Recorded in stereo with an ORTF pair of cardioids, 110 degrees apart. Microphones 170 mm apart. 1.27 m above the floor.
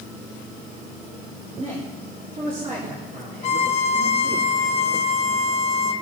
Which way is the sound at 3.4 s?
45° left.